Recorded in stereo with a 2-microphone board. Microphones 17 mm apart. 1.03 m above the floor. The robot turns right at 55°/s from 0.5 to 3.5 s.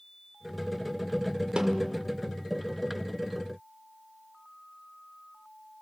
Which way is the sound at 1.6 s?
60° right (ahead or behind).